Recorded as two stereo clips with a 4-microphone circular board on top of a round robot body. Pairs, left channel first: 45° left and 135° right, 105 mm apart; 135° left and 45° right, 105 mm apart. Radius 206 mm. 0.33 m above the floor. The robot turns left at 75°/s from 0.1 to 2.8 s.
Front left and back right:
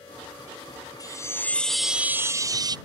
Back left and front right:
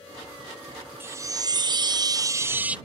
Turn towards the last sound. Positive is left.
turn(degrees=-120)